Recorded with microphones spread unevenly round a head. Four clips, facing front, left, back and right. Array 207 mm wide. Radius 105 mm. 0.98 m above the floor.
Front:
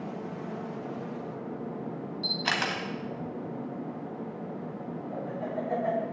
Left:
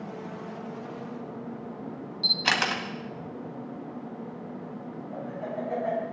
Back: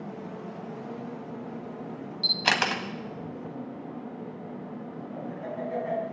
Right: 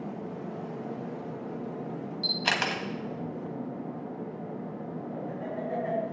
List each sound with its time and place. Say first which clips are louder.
2.2 s a camera shutter: left 3 dB, back 4 dB; 165° left, 2 m
5.1 s laughter: left 3 dB, front 2 dB; 5° right, 7.5 m